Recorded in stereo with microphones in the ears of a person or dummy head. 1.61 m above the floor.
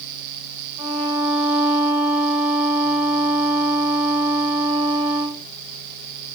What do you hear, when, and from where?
0.8 s a violin: 10° right (ahead or behind), 2.5 m